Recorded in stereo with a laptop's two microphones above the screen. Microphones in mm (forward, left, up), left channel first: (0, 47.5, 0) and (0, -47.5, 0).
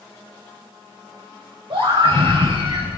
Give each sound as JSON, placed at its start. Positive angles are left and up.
{"t": 1.7, "sound": "a scream", "side_deg": -70, "distance_m": 6.0}